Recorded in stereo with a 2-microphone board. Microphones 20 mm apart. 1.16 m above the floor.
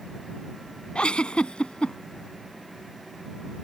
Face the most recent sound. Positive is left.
turn(degrees=60)  # may be behind; listen again after turning